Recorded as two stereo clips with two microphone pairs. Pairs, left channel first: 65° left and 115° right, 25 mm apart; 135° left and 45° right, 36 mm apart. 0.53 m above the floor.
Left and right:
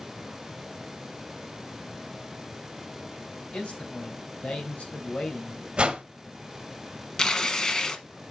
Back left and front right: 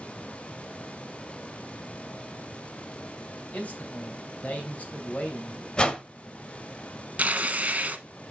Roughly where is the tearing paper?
Ahead.